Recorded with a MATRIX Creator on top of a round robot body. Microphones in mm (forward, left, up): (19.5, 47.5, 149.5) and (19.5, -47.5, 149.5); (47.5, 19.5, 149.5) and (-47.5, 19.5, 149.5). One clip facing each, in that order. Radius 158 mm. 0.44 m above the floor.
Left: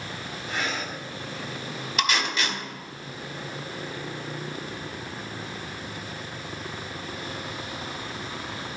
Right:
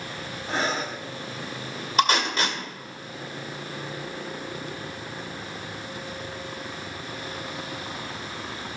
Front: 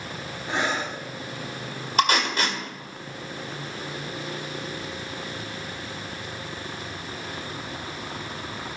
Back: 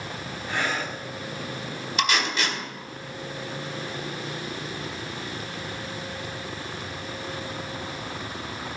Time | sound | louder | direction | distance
0.5 | breathing | right 4 dB, front 2 dB | 55° right | 1.2 m
2.0 | tape being pulled | right 5 dB, front 4 dB | 40° right | 2 m